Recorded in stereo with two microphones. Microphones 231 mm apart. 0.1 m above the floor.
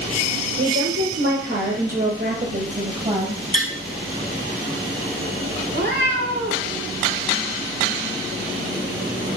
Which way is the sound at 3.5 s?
35° left (ahead or behind).